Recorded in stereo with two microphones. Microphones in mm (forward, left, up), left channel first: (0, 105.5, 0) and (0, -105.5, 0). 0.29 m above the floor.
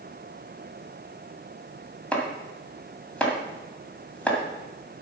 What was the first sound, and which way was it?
Chopping, 5° left (ahead or behind).